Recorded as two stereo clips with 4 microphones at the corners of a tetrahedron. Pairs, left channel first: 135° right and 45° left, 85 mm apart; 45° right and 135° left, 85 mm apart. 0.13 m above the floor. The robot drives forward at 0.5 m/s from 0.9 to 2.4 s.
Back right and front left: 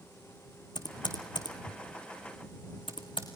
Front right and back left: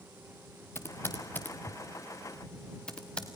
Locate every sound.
0.8 s typing on a keyboard: 105° right, 2 m; by 3.3 s 125° right, 2.5 m